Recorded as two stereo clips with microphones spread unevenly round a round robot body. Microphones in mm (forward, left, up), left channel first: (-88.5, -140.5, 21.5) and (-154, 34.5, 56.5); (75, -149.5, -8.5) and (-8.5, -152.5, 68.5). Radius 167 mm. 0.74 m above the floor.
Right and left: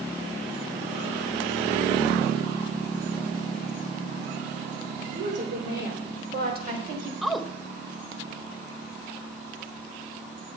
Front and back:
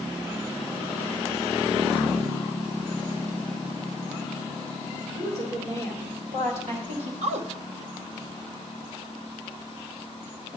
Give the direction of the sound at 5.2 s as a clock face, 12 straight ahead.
7 o'clock.